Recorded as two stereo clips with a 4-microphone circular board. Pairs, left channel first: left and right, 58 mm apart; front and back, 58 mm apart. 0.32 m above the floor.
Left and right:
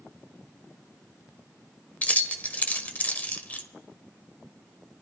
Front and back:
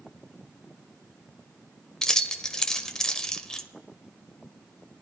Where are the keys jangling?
65° left, 0.6 m.